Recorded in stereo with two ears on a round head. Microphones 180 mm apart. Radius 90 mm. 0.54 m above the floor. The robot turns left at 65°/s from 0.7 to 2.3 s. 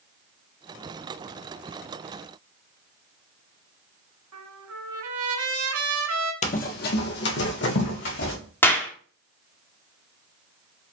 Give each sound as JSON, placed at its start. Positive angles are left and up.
{"t": 4.3, "sound": "a trumpet", "side_deg": -80, "distance_m": 2.0}
{"t": 6.4, "sound": "running footsteps", "side_deg": 35, "distance_m": 0.6}
{"t": 8.6, "sound": "a clap", "side_deg": 10, "distance_m": 1.0}